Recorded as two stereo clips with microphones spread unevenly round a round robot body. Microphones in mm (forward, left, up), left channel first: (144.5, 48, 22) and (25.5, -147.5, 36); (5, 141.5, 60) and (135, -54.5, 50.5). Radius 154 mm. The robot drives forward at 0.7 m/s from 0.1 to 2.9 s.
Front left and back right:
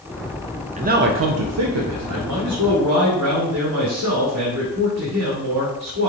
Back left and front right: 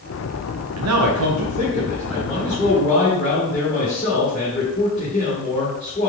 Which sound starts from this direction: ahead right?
A man speaking, at 0.8 s.